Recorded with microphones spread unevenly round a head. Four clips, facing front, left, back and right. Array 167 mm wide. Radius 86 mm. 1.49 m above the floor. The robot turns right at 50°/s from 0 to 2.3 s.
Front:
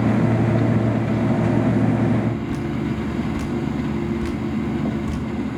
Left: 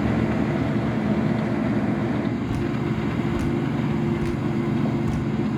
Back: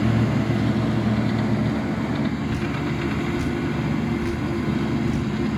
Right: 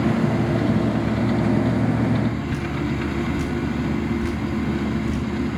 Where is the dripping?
35° left, 1.9 m.